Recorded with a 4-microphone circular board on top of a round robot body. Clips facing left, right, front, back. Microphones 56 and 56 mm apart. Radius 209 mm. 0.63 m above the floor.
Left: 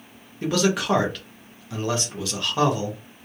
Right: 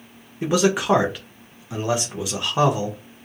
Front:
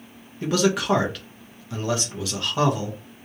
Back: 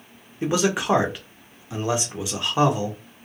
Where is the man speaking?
140° right, 1.0 m.